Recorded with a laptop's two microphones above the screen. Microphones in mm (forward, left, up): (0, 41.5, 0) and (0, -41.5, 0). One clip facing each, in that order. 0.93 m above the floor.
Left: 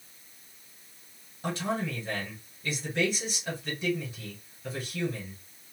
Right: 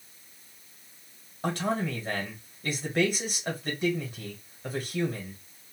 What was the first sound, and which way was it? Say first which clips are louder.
A man speaking: right 2 dB; 50° right (ahead or behind).